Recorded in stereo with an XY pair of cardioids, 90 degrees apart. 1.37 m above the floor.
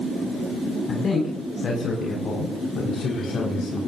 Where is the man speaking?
45° left, 7.5 m; by 3.8 s 60° left, 6 m.